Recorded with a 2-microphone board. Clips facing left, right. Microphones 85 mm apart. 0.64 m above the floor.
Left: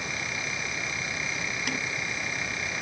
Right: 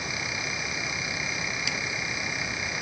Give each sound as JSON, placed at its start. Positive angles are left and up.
{"t": 1.7, "sound": "typing on a keyboard", "side_deg": 50}